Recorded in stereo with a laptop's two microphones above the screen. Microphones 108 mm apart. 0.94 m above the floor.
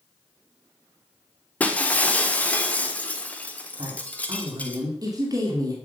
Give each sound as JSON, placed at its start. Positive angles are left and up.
{"t": 1.6, "sound": "breaking glass", "side_deg": 15, "distance_m": 1.4}
{"t": 3.8, "sound": "a woman speaking", "side_deg": -35, "distance_m": 2.0}